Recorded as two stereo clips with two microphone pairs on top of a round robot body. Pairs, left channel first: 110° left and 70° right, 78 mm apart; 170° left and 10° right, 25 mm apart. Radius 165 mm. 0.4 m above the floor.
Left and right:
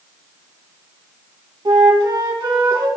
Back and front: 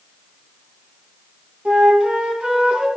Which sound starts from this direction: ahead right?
A flute, at 1.6 s.